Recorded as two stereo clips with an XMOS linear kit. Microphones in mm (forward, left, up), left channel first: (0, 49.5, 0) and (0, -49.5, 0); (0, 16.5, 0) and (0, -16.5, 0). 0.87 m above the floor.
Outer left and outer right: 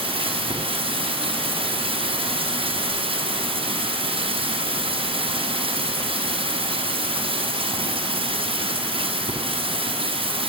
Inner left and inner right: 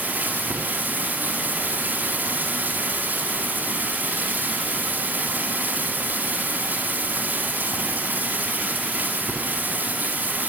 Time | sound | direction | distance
0.0 | running water | 65° right (ahead or behind) | 6.5 m